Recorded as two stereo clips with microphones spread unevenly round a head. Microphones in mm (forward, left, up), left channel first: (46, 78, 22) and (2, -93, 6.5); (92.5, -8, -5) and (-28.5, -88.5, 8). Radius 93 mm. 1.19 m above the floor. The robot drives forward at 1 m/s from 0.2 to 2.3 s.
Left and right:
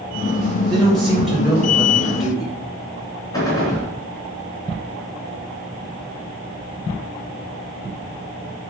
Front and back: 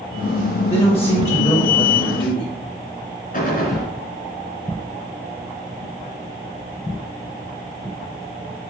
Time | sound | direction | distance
0.7 | a man speaking | 15° right | 5 m
3.3 | a gunshot | 5° left | 4 m